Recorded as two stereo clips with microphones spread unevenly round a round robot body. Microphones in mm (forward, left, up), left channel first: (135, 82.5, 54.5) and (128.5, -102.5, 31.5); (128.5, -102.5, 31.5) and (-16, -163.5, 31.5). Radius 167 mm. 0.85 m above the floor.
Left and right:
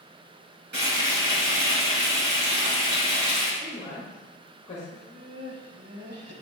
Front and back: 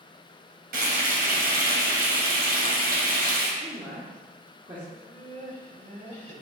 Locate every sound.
0.7 s frying: 145° right, 2.5 m
3.6 s a woman speaking: 140° left, 1.4 m
4.9 s laughter: 120° right, 3.5 m